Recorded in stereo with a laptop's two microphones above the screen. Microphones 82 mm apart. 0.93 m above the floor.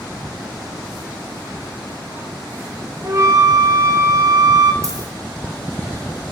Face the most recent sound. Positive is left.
turn(degrees=-40)  # may be behind; listen again after turning